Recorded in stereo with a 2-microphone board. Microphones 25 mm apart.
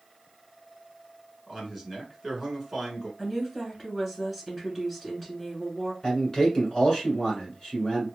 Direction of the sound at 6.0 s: 15° left (ahead or behind).